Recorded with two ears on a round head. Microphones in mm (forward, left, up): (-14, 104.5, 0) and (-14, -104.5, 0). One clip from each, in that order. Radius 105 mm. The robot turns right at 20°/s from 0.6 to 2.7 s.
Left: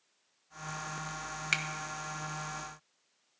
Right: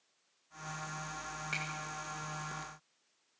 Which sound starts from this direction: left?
A finger snap, at 1.5 s.